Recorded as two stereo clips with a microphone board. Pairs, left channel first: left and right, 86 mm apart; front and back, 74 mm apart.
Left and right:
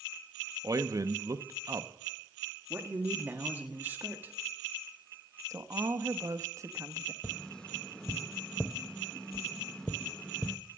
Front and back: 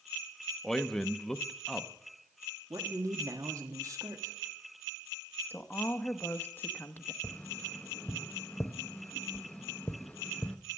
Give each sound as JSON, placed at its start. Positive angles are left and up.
{"t": 0.6, "sound": "a man speaking", "azimuth_deg": -80, "distance_m": 0.8}
{"t": 2.7, "sound": "a man speaking", "azimuth_deg": -150, "distance_m": 1.5}
{"t": 5.5, "sound": "a woman speaking", "azimuth_deg": -55, "distance_m": 0.9}
{"t": 7.2, "sound": "tapping", "azimuth_deg": 25, "distance_m": 0.6}